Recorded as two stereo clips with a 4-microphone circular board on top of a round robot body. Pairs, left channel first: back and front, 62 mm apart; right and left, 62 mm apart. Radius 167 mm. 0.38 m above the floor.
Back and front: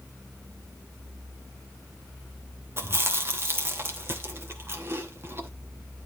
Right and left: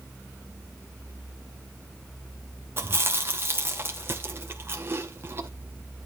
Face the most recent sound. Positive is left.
turn(degrees=45)